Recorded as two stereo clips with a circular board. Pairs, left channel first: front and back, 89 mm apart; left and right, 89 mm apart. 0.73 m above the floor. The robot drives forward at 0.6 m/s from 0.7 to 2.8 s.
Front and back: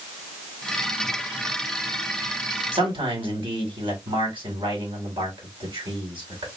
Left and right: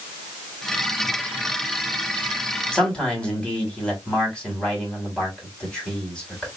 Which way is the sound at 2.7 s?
170° left.